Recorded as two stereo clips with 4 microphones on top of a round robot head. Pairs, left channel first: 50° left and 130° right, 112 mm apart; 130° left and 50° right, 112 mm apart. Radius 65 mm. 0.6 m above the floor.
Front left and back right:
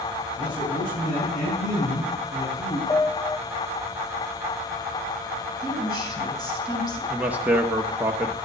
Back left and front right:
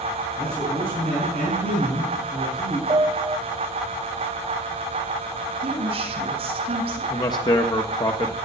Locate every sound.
0.4 s a man speaking: 50° left, 6 m
2.9 s a piano: straight ahead, 0.6 m
5.6 s a woman speaking: 10° right, 4 m
7.1 s a man speaking: 160° left, 1.0 m